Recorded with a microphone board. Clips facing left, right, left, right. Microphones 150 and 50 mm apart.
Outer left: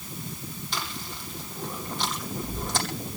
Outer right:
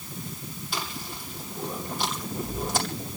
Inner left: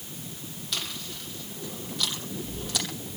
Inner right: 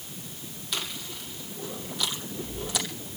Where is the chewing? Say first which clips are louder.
Outer right 2 dB, inner right 1 dB; 5° right (ahead or behind), 7.5 m.